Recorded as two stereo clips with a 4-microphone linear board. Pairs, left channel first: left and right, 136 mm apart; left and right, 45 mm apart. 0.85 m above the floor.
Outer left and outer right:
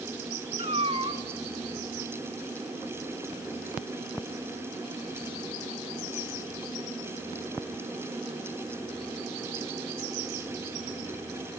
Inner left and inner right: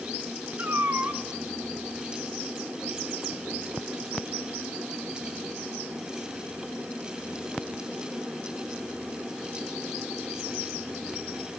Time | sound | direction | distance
0.6 | a cat meowing | 45° right (ahead or behind) | 2.5 m